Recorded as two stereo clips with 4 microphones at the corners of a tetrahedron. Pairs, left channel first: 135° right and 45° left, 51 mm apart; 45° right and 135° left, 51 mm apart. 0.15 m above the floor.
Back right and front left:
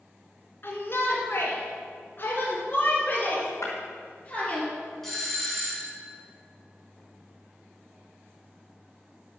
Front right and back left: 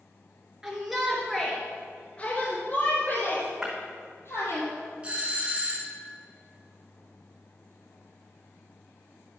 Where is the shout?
150° right, 2 m; by 4.6 s 65° right, 3.5 m.